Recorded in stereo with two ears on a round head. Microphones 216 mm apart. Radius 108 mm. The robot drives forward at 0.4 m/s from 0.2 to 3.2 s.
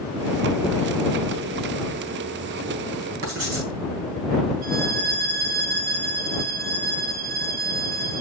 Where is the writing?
50° right (ahead or behind), 4 m.